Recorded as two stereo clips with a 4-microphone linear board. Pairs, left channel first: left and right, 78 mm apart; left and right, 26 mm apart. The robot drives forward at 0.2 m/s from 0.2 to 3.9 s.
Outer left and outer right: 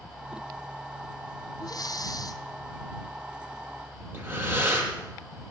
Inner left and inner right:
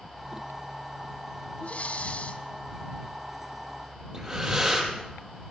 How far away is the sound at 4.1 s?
About 5 m.